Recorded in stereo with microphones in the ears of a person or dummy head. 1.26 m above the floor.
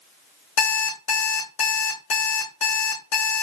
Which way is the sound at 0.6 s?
60° left (ahead or behind).